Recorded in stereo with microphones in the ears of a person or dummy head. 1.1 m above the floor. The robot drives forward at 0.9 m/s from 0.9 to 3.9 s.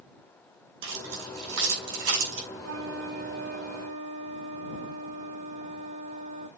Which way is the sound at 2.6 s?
85° right.